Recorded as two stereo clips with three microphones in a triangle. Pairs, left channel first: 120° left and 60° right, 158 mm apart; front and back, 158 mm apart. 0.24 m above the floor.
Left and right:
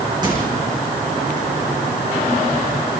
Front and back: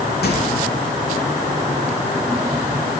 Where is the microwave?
5° left, 9 m.